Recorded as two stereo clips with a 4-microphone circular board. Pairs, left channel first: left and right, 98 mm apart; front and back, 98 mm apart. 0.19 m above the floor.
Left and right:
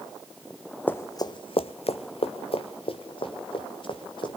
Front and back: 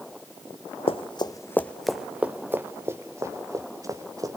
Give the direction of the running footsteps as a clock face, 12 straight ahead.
11 o'clock.